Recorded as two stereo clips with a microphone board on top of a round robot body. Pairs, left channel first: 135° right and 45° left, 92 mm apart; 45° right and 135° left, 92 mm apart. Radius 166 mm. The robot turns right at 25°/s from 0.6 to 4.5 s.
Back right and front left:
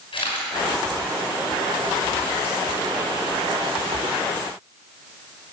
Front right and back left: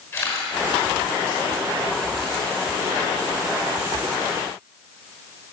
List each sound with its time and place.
0.1 s a camera shutter: 105° right, 5.5 m; by 2.5 s 60° right, 5.5 m